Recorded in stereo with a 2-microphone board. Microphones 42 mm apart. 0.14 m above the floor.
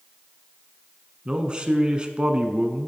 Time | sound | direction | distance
1.2 | a man speaking | 25° right (ahead or behind) | 1.1 m